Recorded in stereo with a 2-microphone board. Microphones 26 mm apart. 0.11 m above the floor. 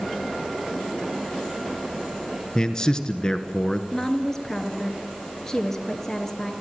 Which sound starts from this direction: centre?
A woman speaking, at 3.9 s.